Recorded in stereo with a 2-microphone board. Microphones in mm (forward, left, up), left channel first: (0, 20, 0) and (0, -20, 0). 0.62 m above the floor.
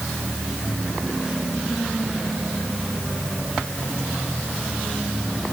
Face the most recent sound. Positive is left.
No sound to turn to.